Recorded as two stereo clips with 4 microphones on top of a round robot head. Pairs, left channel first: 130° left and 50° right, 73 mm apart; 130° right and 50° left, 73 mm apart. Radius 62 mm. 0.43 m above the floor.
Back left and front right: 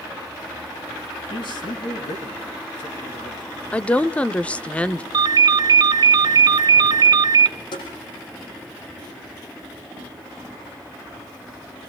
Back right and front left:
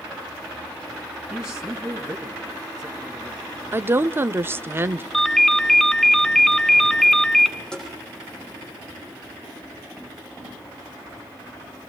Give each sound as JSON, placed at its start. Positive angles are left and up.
{"t": 1.3, "sound": "a man speaking", "azimuth_deg": 130, "distance_m": 4.5}
{"t": 3.7, "sound": "a woman speaking", "azimuth_deg": 70, "distance_m": 0.8}
{"t": 5.1, "sound": "a ringtone", "azimuth_deg": -45, "distance_m": 0.6}
{"t": 7.7, "sound": "tapping", "azimuth_deg": 150, "distance_m": 8.0}